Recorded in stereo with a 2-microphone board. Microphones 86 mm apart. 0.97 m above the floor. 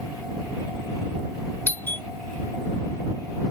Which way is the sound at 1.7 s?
25° left (ahead or behind).